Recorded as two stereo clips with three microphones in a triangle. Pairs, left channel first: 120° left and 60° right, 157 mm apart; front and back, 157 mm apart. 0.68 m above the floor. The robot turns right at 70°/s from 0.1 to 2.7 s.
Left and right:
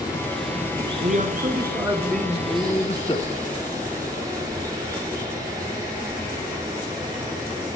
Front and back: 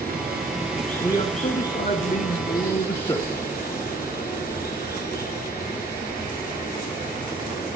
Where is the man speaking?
60° right, 1.2 m; by 3.4 s 55° left, 1.2 m.